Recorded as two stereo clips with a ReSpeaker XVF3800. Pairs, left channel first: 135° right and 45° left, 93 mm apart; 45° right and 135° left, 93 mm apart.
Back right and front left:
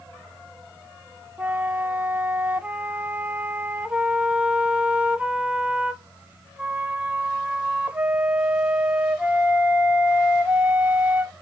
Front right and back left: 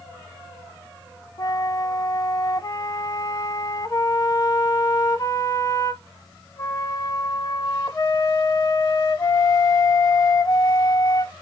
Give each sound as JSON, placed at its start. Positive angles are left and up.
{"t": 1.4, "sound": "a flute", "azimuth_deg": -25, "distance_m": 0.5}